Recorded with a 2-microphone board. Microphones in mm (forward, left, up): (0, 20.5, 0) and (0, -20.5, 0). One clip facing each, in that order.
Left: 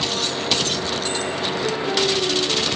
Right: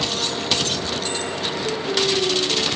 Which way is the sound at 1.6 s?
45° left (ahead or behind).